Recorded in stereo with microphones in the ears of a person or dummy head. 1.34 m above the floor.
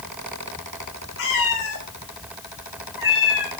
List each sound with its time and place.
1.2 s a cat meowing: 80° left, 3.5 m; by 3.5 s 60° left (ahead or behind), 3 m